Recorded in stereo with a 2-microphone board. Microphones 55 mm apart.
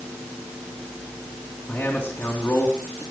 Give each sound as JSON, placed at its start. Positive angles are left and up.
{"t": 1.7, "sound": "a man speaking", "side_deg": 25, "distance_m": 4.0}